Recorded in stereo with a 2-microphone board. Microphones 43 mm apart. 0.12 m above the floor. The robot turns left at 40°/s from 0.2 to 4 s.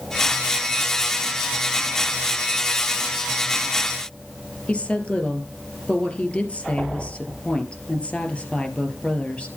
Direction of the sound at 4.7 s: 25° left (ahead or behind).